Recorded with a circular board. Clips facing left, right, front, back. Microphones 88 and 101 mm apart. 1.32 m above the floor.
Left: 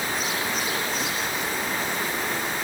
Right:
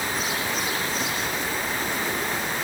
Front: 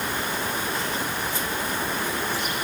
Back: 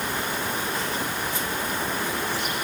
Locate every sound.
Only background noise.